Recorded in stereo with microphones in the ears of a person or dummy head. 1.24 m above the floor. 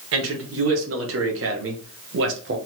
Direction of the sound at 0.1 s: 70° right (ahead or behind).